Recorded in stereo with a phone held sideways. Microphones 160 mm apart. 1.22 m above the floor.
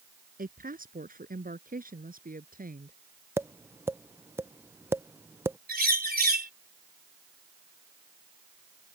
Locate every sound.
0.4 s a woman speaking: 60° right (ahead or behind)
3.4 s tapping: 15° right (ahead or behind)
5.7 s a bird: 75° right (ahead or behind)